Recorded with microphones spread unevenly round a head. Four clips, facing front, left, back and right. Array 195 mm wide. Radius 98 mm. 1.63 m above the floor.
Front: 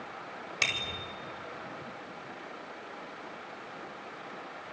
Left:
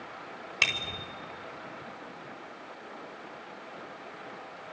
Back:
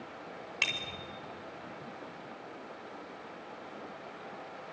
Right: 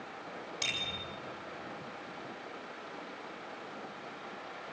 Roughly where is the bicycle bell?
Left.